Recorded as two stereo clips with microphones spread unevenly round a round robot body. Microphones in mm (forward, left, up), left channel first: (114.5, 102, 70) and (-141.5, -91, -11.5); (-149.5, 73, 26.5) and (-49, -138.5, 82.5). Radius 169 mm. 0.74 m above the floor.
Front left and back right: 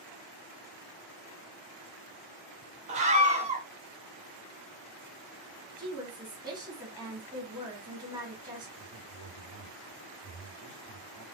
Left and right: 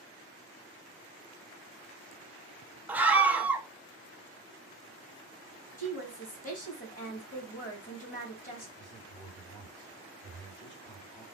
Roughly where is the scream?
Behind.